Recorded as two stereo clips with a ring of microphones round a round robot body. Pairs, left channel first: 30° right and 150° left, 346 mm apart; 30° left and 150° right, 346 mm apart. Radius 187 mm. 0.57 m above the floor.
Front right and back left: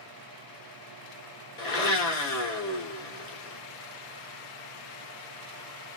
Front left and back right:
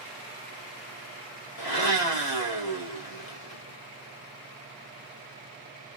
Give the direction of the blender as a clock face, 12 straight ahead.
11 o'clock.